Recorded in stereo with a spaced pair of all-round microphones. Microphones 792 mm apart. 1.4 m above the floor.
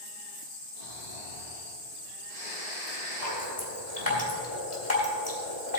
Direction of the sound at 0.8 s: 60° left (ahead or behind).